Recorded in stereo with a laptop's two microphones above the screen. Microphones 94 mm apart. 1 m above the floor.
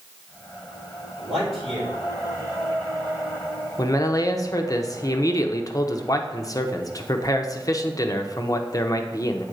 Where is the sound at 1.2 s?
Centre (ahead or behind), 3.5 m.